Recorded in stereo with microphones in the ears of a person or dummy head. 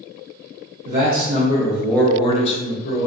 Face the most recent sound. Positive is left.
turn(degrees=50)  # may be behind; listen again after turning